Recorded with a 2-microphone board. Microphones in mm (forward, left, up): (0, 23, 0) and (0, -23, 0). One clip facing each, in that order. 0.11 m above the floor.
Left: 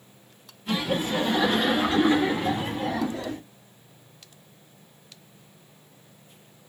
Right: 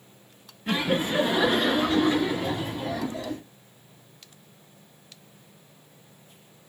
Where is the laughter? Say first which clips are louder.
Right 1 dB; 40° right (ahead or behind), 1.9 m; by 3.4 s 50° left (ahead or behind), 3 m.